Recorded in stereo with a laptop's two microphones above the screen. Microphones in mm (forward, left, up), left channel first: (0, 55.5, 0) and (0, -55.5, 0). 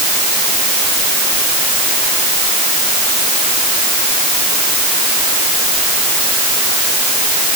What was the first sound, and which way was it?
Only background noise.